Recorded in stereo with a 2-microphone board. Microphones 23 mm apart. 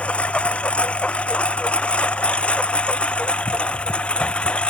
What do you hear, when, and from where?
0.0 s a lawn mower: 75° left (ahead or behind); by 4.7 s 60° left (ahead or behind)